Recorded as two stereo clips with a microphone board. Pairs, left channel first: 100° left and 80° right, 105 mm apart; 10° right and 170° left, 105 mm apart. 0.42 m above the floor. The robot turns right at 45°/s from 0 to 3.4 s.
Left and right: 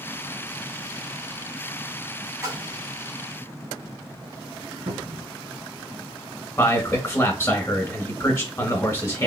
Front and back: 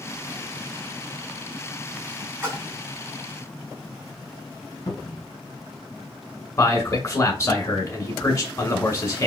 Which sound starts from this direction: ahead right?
A cupboard door, at 4.9 s.